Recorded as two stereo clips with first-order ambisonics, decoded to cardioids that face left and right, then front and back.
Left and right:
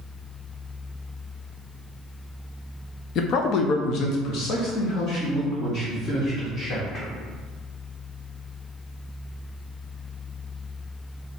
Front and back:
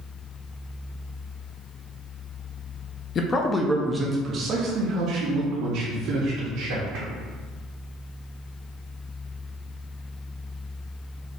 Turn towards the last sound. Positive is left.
turn(degrees=150)